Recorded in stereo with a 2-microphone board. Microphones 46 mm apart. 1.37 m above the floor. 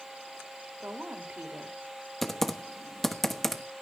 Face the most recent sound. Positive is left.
turn(degrees=5)  # may be behind; listen again after turning